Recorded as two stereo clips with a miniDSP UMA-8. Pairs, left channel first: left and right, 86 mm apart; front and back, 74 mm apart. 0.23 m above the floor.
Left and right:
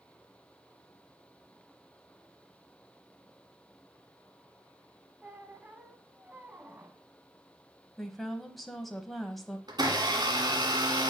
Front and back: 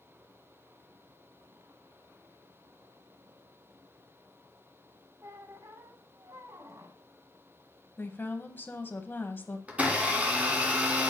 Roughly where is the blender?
Right.